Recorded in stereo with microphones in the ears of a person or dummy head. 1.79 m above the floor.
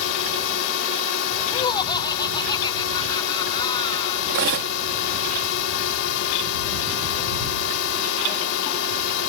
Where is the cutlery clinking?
50° right (ahead or behind).